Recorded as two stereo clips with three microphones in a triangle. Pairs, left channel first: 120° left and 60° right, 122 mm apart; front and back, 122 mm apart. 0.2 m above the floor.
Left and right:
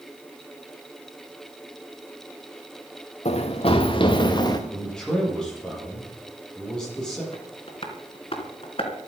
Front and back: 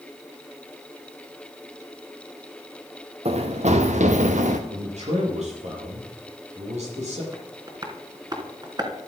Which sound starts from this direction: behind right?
A man speaking, at 4.7 s.